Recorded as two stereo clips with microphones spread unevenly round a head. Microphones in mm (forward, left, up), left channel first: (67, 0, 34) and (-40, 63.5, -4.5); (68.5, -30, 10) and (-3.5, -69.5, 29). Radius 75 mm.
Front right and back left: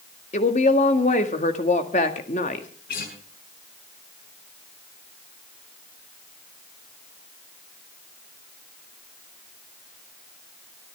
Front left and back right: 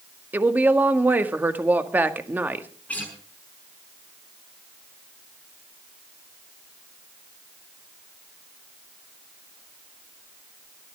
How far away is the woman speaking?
About 1.9 m.